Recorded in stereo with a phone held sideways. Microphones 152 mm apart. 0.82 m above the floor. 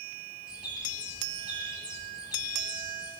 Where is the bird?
5° right (ahead or behind), 7.5 m.